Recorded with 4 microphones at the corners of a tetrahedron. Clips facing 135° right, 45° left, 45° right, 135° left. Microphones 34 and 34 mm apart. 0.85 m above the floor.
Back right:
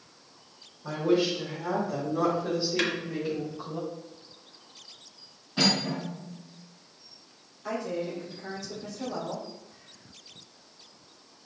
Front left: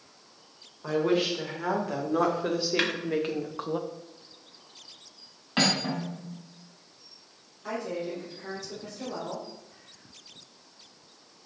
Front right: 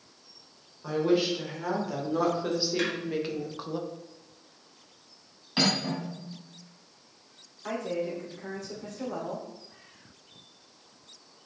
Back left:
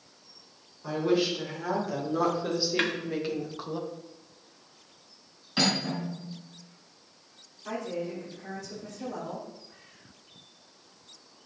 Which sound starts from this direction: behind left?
A snare drum, at 2.8 s.